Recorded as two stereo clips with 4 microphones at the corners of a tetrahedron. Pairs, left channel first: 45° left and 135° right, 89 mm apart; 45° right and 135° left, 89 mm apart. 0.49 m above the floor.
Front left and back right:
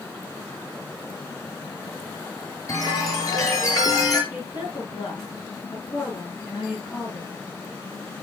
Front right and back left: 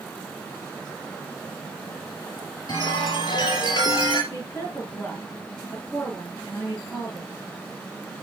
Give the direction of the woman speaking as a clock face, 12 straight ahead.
11 o'clock.